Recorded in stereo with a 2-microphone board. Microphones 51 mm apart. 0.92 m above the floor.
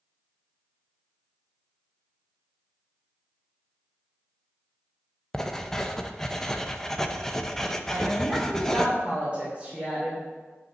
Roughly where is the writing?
Centre.